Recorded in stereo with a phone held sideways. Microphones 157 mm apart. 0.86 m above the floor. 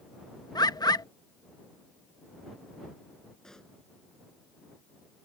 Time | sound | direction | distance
0.6 | a bird | 25° left (ahead or behind) | ?
3.4 | a pop | 5° left (ahead or behind) | ?